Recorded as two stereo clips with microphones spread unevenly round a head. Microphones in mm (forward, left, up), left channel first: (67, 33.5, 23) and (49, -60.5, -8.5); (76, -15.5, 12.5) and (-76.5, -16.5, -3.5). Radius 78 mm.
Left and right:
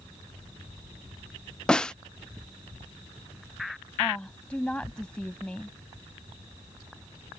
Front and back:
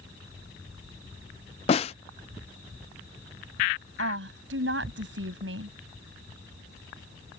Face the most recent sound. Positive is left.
turn(degrees=160)